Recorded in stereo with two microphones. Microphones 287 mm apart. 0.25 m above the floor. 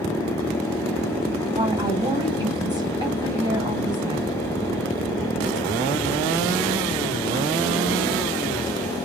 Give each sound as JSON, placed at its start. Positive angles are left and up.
{"t": 1.5, "sound": "a woman speaking", "side_deg": -15, "distance_m": 2.0}